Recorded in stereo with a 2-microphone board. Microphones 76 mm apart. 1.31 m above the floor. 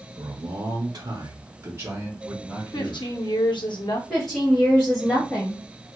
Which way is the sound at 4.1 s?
10° left (ahead or behind).